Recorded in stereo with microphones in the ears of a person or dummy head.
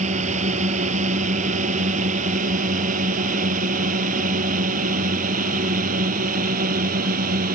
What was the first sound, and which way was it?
A drone, 40° right (ahead or behind).